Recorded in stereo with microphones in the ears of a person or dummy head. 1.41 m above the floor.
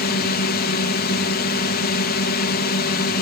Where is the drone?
45° left (ahead or behind).